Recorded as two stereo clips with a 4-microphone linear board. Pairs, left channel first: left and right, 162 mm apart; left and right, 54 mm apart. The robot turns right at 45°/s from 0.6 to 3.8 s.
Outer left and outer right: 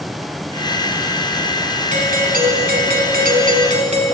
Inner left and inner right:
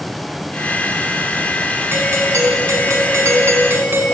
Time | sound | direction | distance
1.9 | a doorbell | 130° right | 4 m